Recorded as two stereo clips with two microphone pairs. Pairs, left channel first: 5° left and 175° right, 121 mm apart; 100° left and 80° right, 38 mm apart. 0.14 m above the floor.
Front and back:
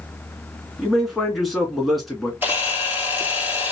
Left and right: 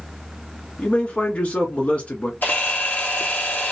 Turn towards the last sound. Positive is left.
turn(degrees=115)